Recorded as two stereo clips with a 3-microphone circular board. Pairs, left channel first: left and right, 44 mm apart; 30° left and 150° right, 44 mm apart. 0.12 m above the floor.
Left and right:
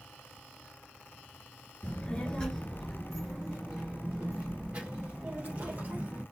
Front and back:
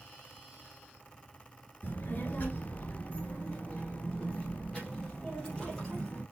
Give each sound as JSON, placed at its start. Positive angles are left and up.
{"t": 1.8, "sound": "a child speaking", "azimuth_deg": 40, "distance_m": 1.6}